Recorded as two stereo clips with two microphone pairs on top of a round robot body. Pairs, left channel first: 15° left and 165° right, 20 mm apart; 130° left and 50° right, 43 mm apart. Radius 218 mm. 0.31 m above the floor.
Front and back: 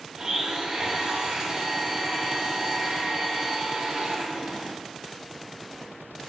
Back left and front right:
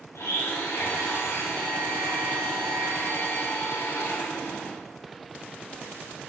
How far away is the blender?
About 0.7 m.